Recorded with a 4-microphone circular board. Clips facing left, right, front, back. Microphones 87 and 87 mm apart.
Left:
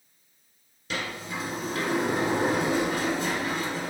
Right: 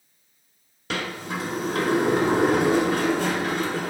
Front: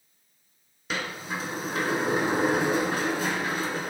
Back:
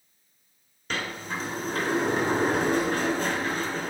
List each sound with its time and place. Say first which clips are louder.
0.9 s a sliding door: right 4 dB, even; 80° right, 0.6 m